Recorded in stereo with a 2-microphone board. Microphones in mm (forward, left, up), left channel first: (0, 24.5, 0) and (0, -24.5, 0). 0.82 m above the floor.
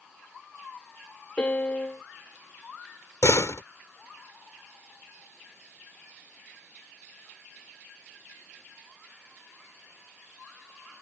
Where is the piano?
30° left (ahead or behind).